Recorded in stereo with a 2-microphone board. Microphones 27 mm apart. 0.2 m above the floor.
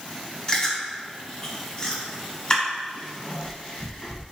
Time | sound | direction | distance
0.5 | chewing | 25° left (ahead or behind) | 1.5 m